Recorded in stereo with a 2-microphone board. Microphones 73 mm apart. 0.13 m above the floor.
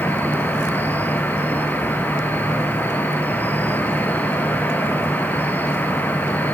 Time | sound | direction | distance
0.0 | an insect | 25° left (ahead or behind) | 2.5 m